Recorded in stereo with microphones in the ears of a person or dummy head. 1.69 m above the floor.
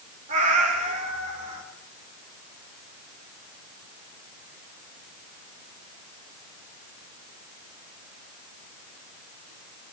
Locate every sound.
0.3 s a cat meowing: 40° right (ahead or behind), 4 m